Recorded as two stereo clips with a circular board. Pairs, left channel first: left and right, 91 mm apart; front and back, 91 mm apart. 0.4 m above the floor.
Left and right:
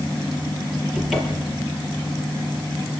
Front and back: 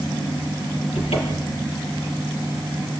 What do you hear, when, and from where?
0.9 s a cupboard door: 5° right, 5.5 m